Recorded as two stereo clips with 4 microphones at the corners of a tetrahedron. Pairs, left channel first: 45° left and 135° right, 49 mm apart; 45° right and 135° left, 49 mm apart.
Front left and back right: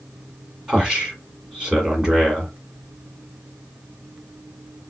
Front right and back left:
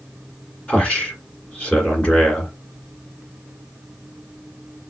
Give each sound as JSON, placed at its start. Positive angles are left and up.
{"t": 0.7, "sound": "a man speaking", "azimuth_deg": -80, "distance_m": 1.6}